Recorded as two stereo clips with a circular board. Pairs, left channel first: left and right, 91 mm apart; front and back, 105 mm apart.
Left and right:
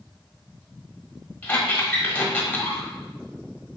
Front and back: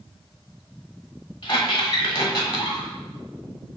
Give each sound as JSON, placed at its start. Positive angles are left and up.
{"t": 1.4, "sound": "a squeak", "azimuth_deg": 20, "distance_m": 1.3}